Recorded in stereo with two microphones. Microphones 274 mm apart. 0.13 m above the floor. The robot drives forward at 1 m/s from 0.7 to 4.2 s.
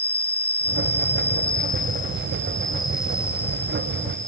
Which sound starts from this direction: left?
An insect, at 0.0 s.